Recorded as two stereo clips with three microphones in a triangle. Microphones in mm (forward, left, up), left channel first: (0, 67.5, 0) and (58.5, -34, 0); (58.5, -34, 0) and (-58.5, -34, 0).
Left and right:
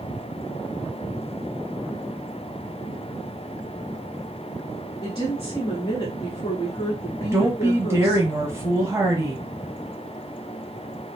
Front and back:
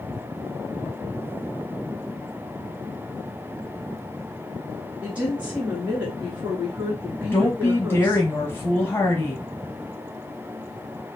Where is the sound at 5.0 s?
120° left, 1.2 m.